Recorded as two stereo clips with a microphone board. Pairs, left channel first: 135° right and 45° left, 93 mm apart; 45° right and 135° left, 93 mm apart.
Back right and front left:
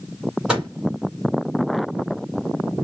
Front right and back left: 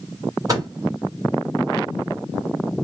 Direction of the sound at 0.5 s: 120° left.